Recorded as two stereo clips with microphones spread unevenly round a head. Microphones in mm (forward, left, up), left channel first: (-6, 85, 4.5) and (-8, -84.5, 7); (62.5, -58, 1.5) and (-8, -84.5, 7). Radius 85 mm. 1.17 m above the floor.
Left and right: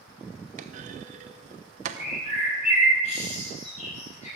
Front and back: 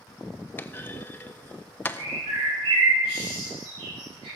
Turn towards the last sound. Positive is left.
turn(degrees=140)